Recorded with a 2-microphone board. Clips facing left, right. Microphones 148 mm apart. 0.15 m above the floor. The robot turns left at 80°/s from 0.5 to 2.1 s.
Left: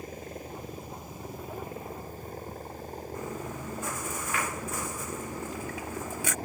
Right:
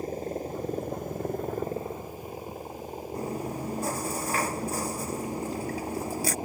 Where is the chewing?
40° right (ahead or behind).